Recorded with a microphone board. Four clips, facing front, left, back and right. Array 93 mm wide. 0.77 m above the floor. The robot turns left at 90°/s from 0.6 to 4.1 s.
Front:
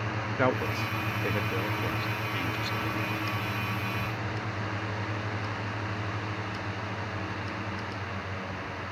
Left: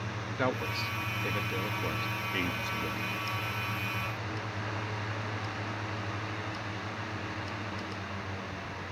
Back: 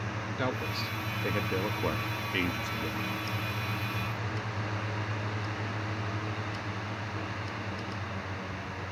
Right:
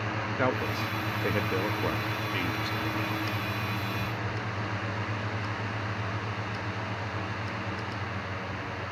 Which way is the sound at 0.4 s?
20° right.